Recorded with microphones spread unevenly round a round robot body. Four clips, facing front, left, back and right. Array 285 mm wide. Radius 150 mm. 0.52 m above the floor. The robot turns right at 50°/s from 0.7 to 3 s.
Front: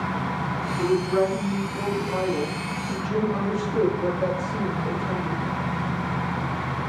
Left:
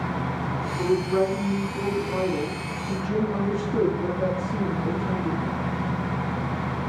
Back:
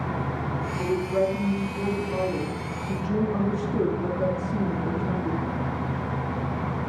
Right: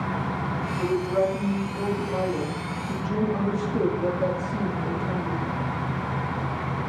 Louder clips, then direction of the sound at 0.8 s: Left 1 dB, front 3 dB; 15° left.